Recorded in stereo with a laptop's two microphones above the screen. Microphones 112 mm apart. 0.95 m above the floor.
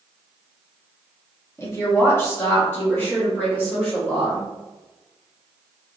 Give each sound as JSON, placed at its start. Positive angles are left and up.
{"t": 1.6, "sound": "a woman speaking", "side_deg": 25, "distance_m": 0.9}